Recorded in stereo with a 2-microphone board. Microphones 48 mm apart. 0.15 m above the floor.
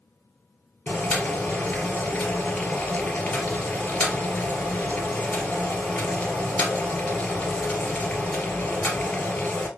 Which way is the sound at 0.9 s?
30° left (ahead or behind).